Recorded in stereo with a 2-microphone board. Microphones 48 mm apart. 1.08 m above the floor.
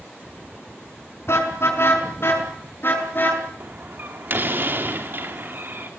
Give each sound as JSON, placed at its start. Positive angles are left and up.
{"t": 1.3, "sound": "a car horn", "side_deg": 60, "distance_m": 5.0}
{"t": 3.6, "sound": "a door slam", "side_deg": -45, "distance_m": 2.5}